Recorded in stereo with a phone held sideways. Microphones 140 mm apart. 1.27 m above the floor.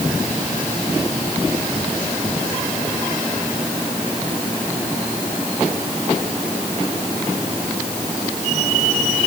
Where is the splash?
No splash in this recording.